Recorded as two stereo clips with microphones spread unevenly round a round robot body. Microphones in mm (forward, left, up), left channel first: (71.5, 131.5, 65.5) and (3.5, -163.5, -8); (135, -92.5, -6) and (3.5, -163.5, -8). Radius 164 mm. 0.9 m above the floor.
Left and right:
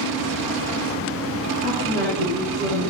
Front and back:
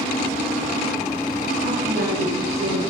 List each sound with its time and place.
1.6 s a woman speaking: 165° right, 9 m